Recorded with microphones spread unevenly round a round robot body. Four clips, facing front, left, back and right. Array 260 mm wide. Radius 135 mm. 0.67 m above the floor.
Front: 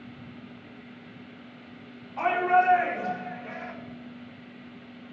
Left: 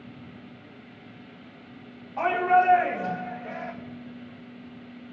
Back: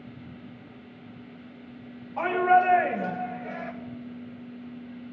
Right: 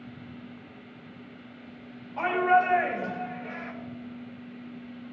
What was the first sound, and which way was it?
A shout, 170° right.